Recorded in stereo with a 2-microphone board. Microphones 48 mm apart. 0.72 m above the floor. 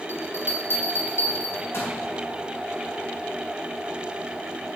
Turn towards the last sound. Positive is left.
turn(degrees=60)  # may be behind; listen again after turning